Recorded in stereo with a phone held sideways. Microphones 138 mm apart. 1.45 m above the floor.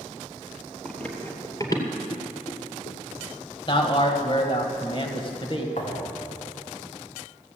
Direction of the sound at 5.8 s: 70° left (ahead or behind).